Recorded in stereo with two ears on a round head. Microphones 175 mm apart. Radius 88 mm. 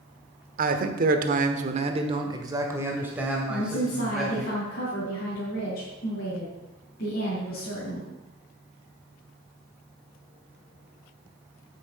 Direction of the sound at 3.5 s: 50° left (ahead or behind).